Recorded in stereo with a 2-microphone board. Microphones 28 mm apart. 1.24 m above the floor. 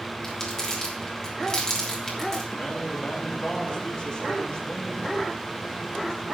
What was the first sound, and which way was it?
Crumpling, 25° left (ahead or behind).